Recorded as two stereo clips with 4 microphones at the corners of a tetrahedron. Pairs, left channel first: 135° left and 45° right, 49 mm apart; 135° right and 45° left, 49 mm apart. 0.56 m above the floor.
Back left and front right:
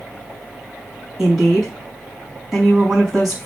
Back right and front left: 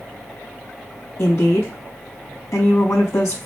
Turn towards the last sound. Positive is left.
turn(degrees=-130)